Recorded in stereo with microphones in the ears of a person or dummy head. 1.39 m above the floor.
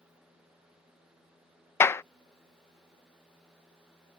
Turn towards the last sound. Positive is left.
turn(degrees=10)  # may be behind; listen again after turning